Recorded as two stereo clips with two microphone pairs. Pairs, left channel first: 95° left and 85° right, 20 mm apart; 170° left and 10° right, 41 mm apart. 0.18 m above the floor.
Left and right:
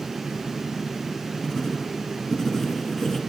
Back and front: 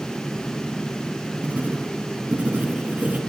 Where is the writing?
35° left, 2.5 m.